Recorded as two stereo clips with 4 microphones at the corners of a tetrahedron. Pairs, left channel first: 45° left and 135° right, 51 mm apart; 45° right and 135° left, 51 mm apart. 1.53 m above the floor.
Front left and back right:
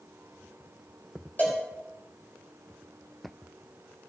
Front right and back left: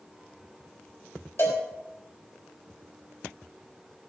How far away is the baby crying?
I don't hear a baby crying.